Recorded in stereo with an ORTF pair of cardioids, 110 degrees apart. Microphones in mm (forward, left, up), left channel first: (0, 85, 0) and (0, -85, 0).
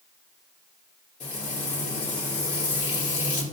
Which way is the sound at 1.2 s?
40° left.